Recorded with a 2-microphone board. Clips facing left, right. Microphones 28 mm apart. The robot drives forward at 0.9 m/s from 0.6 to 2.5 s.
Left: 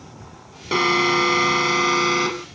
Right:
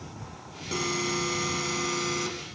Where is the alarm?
50° left (ahead or behind); by 2.5 s 45° left (ahead or behind).